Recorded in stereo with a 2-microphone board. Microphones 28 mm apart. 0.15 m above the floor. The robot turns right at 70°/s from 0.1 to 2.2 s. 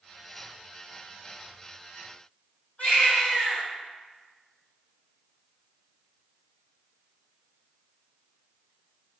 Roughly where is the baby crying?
Left.